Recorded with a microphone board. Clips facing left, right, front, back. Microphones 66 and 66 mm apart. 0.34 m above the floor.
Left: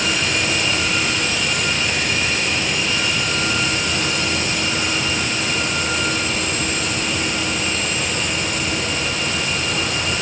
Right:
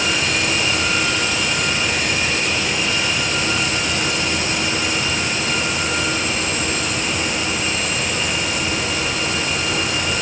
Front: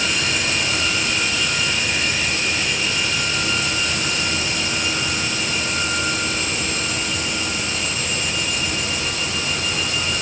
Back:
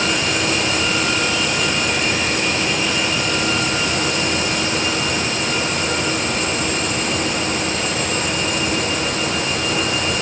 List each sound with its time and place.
Only background noise.